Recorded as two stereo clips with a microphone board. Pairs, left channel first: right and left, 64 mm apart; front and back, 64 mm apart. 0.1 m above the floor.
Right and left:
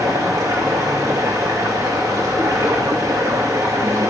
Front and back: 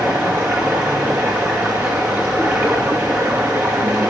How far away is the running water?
About 2.5 m.